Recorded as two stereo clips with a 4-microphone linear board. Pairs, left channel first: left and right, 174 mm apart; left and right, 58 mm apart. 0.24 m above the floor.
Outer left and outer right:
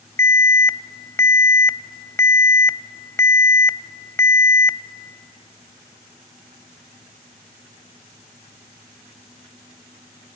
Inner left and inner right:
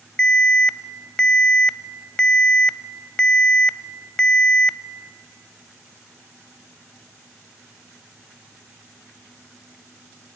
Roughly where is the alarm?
Centre.